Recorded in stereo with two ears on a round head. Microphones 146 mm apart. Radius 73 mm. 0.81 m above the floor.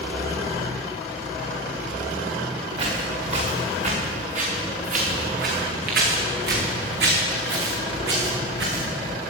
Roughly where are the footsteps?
Right.